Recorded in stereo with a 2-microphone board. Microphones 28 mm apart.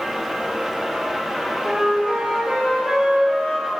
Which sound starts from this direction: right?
A flute, at 1.6 s.